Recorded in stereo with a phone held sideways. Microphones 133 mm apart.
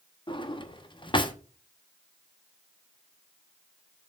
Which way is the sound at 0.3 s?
35° left (ahead or behind).